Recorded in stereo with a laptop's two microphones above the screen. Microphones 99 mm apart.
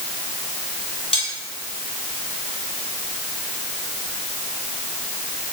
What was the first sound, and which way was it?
Cutlery clinking, 70° left (ahead or behind).